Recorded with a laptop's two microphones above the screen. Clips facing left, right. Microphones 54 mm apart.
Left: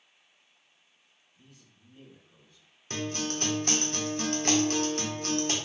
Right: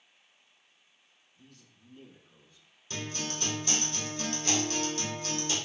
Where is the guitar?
45° left (ahead or behind), 0.9 m.